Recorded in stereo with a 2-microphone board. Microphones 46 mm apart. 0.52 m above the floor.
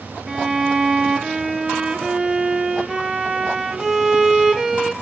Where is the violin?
10° right (ahead or behind), 0.8 m.